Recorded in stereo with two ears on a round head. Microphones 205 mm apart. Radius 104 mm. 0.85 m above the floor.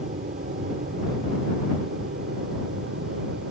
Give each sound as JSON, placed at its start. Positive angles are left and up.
{"t": 0.0, "sound": "an aircraft", "side_deg": -35}